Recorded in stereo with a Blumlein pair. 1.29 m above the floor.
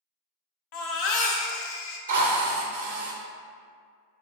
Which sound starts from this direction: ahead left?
A baby crying, at 0.7 s.